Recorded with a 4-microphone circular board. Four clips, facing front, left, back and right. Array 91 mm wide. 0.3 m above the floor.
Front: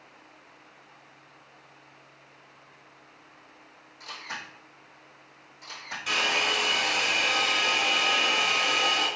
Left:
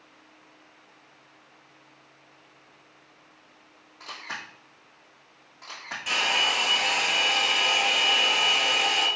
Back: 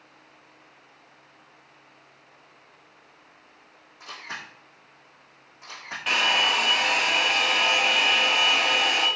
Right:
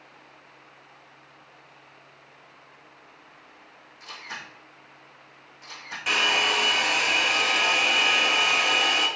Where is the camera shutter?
120° left, 3 m.